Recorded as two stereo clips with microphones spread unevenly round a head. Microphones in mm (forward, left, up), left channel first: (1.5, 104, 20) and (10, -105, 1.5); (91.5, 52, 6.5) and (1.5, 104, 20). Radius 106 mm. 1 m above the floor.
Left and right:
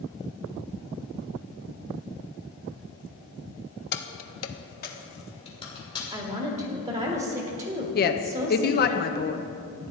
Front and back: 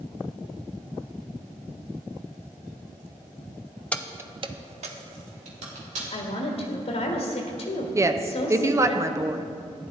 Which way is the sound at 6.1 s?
30° right.